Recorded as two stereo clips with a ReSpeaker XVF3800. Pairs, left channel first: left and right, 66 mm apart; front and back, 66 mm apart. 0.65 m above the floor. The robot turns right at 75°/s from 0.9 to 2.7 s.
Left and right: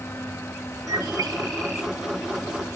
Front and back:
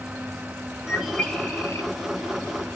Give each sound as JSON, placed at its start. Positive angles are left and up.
{"t": 0.9, "sound": "a bird", "azimuth_deg": -105, "distance_m": 2.5}